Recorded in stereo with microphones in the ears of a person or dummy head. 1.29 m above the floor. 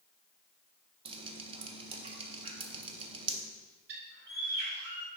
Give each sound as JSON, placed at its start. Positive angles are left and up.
{"t": 1.1, "sound": "dripping", "side_deg": -30, "distance_m": 0.7}
{"t": 3.9, "sound": "a bird", "side_deg": -65, "distance_m": 2.0}